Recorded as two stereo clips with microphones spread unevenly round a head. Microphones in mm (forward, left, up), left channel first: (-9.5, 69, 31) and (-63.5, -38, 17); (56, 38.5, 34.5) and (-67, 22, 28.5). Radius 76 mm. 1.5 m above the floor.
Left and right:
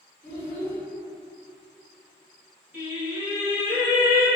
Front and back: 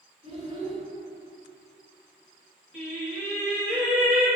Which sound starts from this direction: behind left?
A child speaking, at 0.2 s.